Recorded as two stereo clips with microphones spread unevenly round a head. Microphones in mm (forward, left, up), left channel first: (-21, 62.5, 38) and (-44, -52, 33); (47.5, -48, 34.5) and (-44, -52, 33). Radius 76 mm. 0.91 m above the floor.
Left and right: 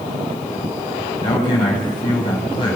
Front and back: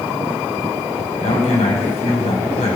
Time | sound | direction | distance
1.2 | a man speaking | 20° left | 5.5 m